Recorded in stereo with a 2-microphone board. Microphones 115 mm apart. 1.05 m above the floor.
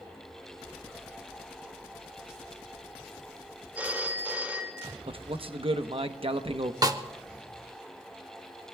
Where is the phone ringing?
15° right (ahead or behind), 2 m.